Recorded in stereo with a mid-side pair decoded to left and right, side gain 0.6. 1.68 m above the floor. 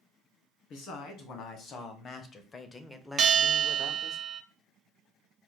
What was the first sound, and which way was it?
A man speaking, 60° left.